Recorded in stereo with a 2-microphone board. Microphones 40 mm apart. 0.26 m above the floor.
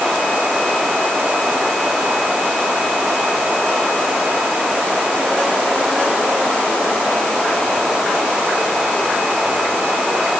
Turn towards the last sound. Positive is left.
No sound to turn to.